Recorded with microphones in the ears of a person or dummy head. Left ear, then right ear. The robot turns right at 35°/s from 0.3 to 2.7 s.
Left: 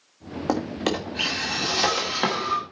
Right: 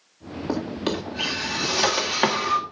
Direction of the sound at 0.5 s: 40° left (ahead or behind).